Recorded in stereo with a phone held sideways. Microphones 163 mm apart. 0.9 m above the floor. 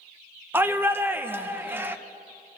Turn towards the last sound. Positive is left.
turn(degrees=-15)  # may be behind; listen again after turning